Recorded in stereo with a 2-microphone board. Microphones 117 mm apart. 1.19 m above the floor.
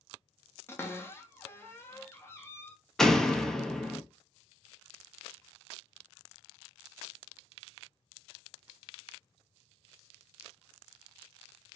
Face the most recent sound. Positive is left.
turn(degrees=5)  # may be behind; listen again after turning